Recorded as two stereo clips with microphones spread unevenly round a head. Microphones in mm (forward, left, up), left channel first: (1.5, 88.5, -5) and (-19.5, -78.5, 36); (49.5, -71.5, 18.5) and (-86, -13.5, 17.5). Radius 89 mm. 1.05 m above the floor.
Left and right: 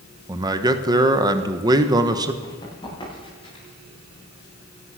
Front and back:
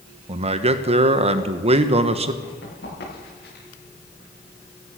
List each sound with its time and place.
0.3 s a man speaking: 170° right, 1.1 m
2.4 s running footsteps: 10° left, 8.5 m; by 3.6 s 20° left, 9 m